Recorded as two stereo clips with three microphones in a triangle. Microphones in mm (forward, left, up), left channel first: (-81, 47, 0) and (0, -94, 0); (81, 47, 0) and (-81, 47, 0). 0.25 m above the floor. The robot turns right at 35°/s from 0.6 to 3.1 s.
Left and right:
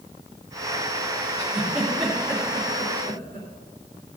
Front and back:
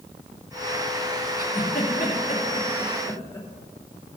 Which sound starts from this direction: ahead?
A giggle, at 1.4 s.